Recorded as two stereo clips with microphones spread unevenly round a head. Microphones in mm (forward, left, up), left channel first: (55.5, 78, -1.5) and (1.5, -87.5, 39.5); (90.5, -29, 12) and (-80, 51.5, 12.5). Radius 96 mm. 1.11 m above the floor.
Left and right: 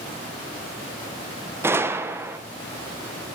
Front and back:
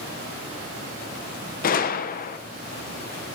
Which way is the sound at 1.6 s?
25° right.